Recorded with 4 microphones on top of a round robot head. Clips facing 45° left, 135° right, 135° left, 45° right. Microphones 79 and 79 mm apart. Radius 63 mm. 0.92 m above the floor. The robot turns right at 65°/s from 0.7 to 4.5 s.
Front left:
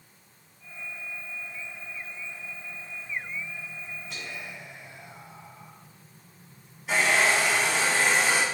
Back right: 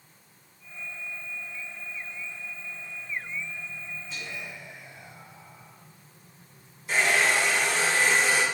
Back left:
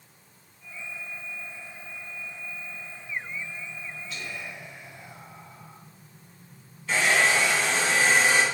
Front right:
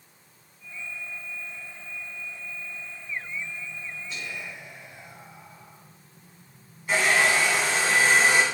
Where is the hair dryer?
35° left, 2 m.